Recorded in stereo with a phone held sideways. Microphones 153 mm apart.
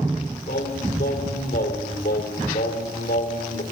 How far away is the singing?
About 3.5 m.